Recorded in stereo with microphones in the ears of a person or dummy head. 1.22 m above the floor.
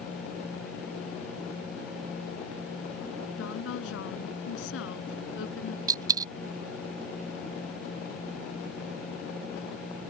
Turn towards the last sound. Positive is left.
turn(degrees=-20)  # may be behind; listen again after turning